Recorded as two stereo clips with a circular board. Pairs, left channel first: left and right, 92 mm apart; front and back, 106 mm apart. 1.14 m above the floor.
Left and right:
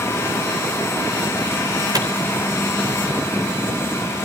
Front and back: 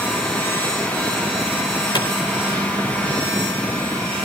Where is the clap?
45° right, 3.5 m.